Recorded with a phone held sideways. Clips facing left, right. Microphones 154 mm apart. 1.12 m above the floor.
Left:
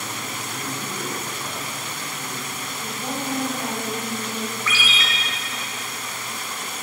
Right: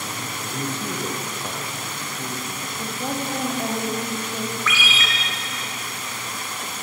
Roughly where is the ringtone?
Left.